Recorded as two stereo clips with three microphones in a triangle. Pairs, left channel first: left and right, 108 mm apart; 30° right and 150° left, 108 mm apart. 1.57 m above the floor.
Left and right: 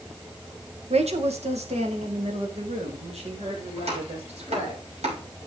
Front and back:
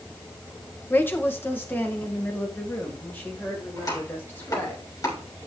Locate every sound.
0.9 s a woman speaking: 100° right, 1.6 m
3.8 s chopping: 85° right, 5.5 m